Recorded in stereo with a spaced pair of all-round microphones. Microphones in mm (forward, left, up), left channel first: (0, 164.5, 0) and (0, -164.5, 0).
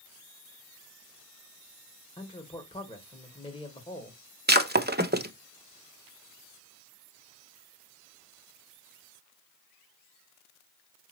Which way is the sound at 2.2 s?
15° left (ahead or behind).